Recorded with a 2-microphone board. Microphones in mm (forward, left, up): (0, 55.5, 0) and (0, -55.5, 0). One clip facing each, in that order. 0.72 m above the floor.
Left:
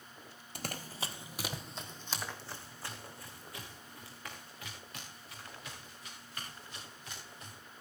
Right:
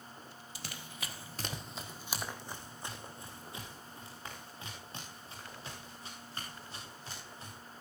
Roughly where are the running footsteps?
Left.